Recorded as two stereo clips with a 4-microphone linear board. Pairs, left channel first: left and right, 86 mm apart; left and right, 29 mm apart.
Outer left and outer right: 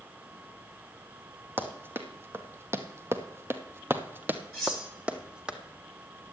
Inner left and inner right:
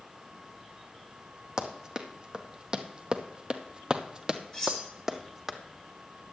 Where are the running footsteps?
25° right (ahead or behind), 1.5 m; by 5.5 s 10° right (ahead or behind), 1.4 m.